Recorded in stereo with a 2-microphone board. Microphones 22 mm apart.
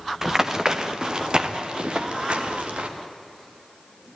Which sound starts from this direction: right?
Running footsteps, at 0.2 s.